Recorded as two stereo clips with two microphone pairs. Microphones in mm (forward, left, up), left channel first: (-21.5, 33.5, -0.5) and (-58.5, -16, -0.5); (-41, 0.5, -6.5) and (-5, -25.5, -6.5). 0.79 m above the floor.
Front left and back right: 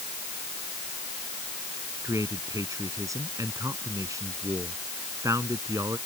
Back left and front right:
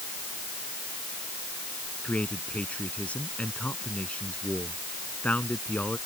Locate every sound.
2.0 s a man speaking: 155° right